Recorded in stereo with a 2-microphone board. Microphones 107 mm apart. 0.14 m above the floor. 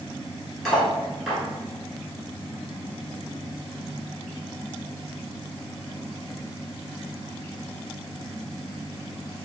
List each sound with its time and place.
0.7 s cutlery clinking: 5° left (ahead or behind), 1.6 m